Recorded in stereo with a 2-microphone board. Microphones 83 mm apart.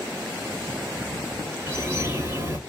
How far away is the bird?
About 1.4 m.